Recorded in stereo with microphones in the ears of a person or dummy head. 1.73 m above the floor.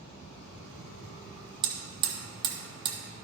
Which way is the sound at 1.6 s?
30° right (ahead or behind).